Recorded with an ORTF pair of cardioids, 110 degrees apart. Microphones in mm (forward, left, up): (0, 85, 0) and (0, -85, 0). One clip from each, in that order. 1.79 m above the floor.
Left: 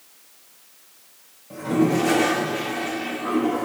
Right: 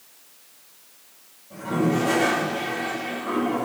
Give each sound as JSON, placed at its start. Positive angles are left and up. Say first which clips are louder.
{"t": 1.5, "sound": "a toilet flushing", "louder": "left 3 dB", "azimuth_deg": 60, "distance_m": 3.0}